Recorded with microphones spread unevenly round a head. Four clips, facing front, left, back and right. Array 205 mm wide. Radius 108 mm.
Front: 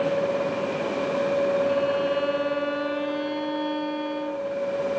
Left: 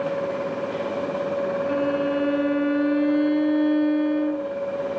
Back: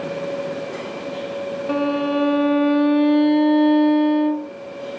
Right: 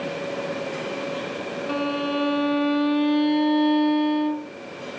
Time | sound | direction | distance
1.7 | a violin | 175° left | ?